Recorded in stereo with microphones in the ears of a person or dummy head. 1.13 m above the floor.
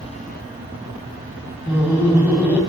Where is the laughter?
15° right (ahead or behind), 3 m.